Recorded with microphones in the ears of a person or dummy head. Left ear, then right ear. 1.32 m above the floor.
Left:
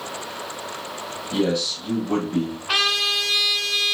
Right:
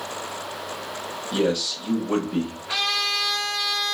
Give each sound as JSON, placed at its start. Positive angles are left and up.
{"t": 1.3, "sound": "a man speaking", "side_deg": -15, "distance_m": 1.3}
{"t": 2.7, "sound": "a trumpet", "side_deg": 45, "distance_m": 2.0}